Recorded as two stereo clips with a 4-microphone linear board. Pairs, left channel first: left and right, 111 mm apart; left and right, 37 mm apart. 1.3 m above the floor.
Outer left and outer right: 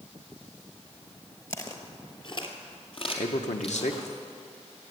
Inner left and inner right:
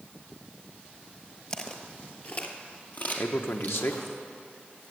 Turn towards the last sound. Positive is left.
turn(degrees=75)  # may be behind; listen again after turning